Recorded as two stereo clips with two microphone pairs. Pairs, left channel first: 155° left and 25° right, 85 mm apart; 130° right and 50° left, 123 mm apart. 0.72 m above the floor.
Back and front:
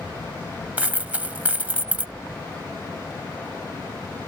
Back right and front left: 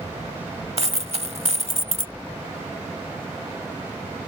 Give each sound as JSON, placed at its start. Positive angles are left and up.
{"t": 0.8, "sound": "a dropped coin", "azimuth_deg": 45}